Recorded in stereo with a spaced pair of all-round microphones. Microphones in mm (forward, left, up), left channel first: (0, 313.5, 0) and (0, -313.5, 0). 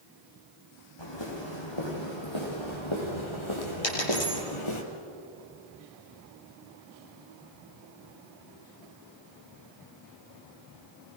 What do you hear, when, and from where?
1.0 s footsteps: 45° left (ahead or behind), 5 m; by 4.8 s 50° left (ahead or behind), 2.5 m
3.8 s a dropped coin: 60° left (ahead or behind), 5 m